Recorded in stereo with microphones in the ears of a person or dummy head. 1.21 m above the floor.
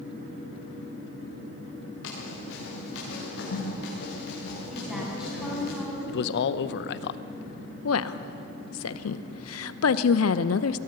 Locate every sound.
2.0 s running footsteps: 80° left, 7 m; by 5.7 s 60° left (ahead or behind), 7.5 m
4.7 s a woman speaking: 5° left (ahead or behind), 7.5 m
6.1 s a man speaking: 65° left (ahead or behind), 0.7 m
7.8 s a woman speaking: 75° left (ahead or behind), 0.9 m